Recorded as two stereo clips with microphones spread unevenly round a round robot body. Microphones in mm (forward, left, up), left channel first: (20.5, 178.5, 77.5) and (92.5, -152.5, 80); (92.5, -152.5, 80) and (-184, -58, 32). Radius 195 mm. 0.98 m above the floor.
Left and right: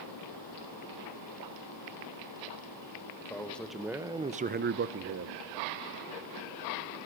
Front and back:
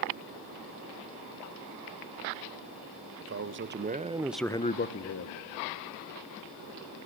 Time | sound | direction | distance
3.2 | a man speaking | 175° right | 1.6 m